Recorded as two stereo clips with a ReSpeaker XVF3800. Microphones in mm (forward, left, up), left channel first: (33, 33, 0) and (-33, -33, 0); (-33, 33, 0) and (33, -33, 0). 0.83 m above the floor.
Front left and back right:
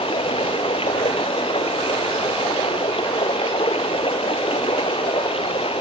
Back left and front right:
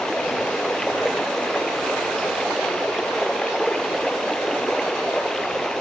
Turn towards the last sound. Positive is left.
turn(degrees=50)